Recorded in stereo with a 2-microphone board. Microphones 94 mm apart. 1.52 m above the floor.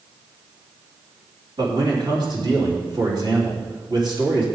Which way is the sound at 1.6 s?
55° right (ahead or behind).